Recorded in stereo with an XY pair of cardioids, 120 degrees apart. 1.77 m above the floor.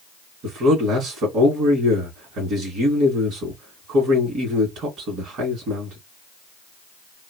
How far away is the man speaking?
About 2 m.